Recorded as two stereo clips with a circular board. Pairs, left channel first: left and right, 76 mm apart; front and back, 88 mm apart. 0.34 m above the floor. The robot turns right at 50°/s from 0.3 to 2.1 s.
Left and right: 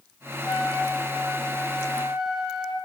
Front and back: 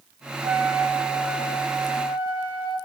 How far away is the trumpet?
About 1.0 m.